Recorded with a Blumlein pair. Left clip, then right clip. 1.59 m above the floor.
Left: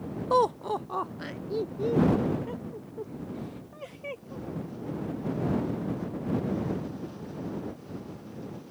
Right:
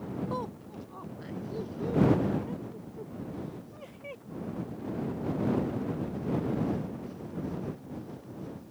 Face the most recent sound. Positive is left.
turn(degrees=10)